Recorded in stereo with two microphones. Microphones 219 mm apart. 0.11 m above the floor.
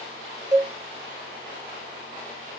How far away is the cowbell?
About 1.9 m.